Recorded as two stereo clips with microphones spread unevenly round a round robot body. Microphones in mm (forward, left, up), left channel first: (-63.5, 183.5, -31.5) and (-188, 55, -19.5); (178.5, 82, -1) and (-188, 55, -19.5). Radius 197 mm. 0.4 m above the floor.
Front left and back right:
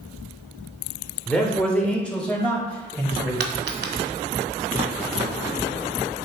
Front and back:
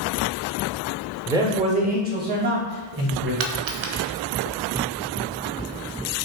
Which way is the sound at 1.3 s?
115° left.